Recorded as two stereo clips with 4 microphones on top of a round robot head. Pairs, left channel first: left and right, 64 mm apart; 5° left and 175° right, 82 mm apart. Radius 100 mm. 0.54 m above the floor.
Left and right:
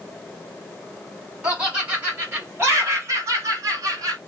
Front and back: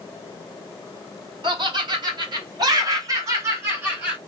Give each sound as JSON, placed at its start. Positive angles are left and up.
{"t": 1.4, "sound": "laughter", "azimuth_deg": -160, "distance_m": 2.0}